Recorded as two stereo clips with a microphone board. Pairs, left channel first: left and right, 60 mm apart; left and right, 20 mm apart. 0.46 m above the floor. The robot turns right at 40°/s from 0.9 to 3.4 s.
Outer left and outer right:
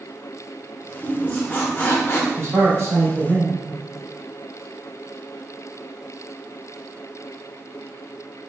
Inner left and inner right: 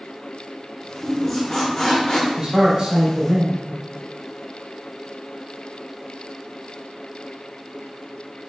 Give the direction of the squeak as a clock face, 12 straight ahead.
11 o'clock.